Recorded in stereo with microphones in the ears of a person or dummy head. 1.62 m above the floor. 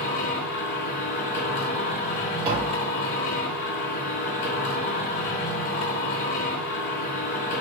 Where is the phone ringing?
I don't hear a phone ringing.